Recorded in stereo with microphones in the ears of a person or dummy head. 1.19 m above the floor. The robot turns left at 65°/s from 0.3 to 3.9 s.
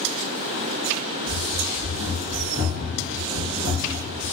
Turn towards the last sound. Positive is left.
turn(degrees=-25)  # may be behind; listen again after turning